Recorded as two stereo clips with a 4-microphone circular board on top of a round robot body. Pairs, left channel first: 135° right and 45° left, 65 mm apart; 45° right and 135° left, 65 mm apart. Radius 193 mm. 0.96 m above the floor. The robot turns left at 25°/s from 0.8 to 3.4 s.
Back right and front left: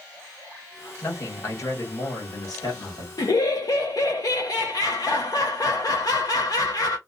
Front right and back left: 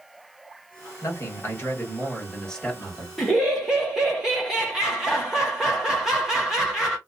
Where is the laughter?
135° right, 0.8 m; by 7.0 s 140° right, 0.8 m.